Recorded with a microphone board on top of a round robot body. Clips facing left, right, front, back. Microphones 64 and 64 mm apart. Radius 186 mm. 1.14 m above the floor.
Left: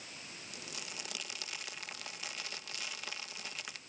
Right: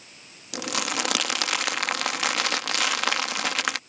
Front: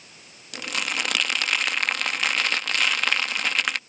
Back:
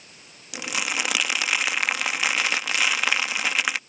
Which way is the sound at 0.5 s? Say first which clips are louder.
Right 21 dB, back 1 dB; 95° right.